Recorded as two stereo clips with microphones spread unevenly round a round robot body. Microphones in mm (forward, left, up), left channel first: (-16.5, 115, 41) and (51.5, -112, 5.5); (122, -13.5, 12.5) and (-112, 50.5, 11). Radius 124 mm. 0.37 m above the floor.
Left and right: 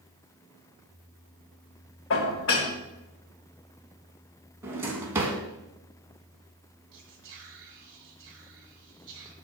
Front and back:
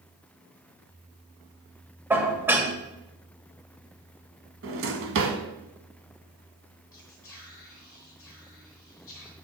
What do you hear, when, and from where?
2.1 s dishes clattering: 85° left, 1.2 m
4.6 s a drawer: 155° right, 1.1 m
6.9 s whispering: 90° right, 1.3 m